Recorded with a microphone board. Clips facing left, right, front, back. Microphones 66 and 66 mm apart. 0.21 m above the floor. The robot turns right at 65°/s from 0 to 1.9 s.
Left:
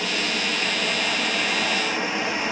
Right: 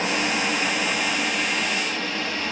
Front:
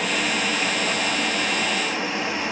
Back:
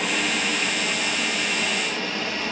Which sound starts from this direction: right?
Running water, at 0.0 s.